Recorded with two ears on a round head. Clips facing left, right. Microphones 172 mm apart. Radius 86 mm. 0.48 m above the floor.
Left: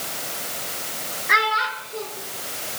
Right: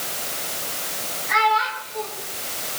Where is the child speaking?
75° left (ahead or behind), 4 m.